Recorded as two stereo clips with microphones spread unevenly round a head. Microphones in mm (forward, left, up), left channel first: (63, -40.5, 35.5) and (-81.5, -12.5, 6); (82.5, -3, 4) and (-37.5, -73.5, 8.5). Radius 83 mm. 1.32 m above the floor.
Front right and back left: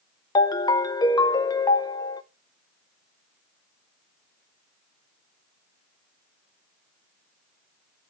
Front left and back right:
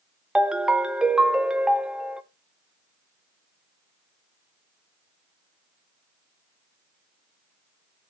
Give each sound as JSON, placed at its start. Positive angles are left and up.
{"t": 0.3, "sound": "a ringtone", "azimuth_deg": -65, "distance_m": 0.5}